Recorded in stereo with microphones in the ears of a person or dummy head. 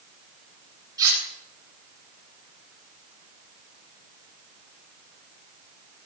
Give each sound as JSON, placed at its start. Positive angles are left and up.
{"t": 1.0, "sound": "cutlery clinking", "side_deg": -20, "distance_m": 8.0}